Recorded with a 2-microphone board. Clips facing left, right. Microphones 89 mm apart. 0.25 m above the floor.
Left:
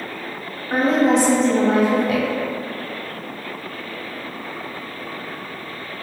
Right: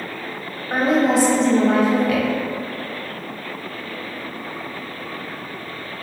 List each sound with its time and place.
0.7 s a woman speaking: 20° right (ahead or behind), 1.0 m; by 2.3 s 30° left (ahead or behind), 1.1 m